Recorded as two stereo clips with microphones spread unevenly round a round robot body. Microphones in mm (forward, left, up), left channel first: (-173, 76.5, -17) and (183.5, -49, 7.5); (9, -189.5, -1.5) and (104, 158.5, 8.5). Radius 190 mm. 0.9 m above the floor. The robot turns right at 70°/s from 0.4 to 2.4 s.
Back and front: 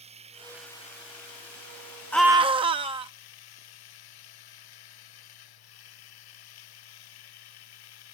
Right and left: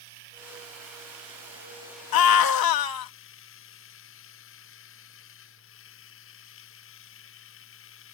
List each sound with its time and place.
0.0 s running water: 55° left; by 8.1 s 165° right
2.1 s a scream: 115° right; by 3.1 s 95° right